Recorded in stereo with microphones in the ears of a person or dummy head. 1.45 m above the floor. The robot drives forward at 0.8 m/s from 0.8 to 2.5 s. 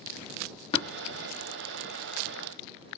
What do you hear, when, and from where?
0.7 s tapping: 30° left (ahead or behind), 1.1 m